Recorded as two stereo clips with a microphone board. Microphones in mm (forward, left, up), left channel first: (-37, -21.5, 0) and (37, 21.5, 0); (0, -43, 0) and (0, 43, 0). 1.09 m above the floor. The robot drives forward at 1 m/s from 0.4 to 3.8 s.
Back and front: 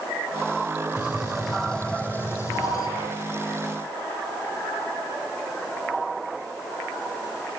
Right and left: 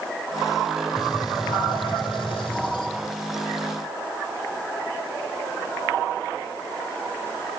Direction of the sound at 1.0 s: 45° right.